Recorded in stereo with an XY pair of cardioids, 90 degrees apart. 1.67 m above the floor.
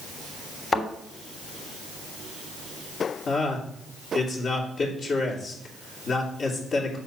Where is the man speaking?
55° left, 2.5 m.